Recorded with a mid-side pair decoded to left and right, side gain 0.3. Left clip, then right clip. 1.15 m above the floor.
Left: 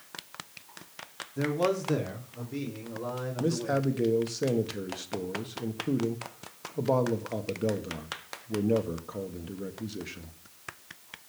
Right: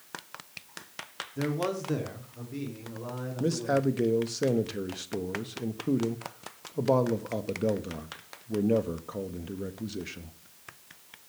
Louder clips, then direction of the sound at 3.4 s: Right 2 dB; 25° right.